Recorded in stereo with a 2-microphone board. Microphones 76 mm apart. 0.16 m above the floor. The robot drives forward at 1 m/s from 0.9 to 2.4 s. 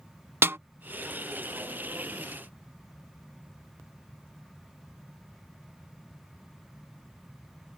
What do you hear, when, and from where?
0.4 s a snare drum: 30° right (ahead or behind)